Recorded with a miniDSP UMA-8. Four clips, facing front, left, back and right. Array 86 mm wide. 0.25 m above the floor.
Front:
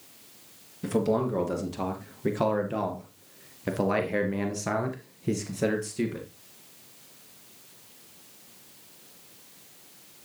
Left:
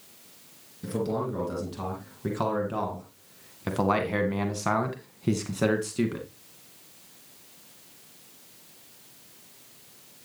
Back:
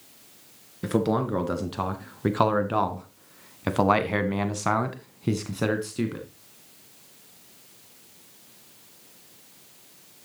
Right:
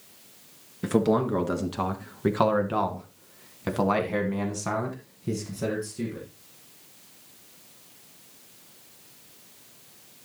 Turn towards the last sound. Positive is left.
turn(degrees=130)